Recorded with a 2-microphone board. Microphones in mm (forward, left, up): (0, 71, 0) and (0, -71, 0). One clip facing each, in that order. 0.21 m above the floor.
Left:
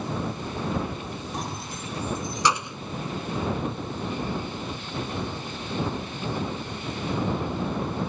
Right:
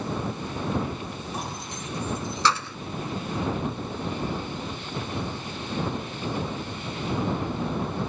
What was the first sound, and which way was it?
Keys jangling, 5° right (ahead or behind).